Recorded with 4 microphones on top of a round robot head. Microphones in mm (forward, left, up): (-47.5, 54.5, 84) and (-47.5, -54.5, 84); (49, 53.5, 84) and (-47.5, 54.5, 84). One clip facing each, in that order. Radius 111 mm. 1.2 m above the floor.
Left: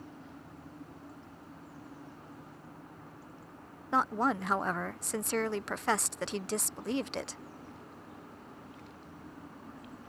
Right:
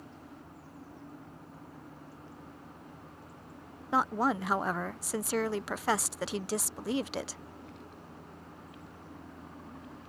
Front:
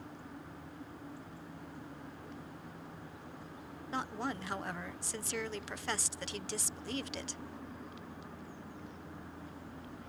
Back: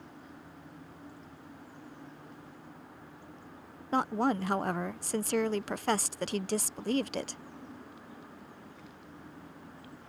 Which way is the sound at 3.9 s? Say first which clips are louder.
Right 1 dB, back 10 dB; 175° right.